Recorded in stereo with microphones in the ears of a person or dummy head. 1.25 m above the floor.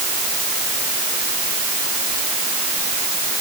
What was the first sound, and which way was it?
Only background noise.